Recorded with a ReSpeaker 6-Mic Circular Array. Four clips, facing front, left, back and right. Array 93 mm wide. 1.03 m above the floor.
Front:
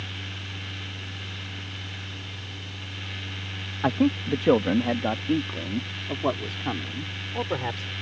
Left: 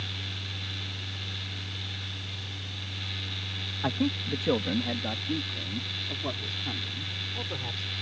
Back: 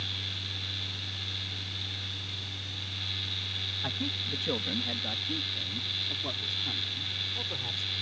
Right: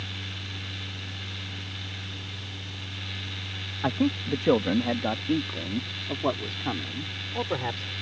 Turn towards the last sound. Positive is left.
turn(degrees=-40)